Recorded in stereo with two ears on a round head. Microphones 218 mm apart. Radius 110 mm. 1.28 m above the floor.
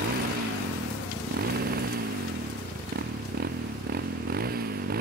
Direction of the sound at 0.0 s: 40° right (ahead or behind).